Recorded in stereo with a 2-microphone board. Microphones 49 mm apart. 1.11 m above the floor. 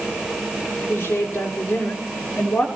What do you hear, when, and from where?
0.9 s a woman speaking: 45° left (ahead or behind), 4.5 m; by 2.7 s 25° left (ahead or behind), 3.5 m